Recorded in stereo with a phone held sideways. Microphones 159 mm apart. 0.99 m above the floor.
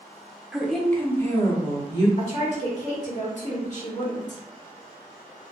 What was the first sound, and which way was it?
A woman speaking, 5° right (ahead or behind).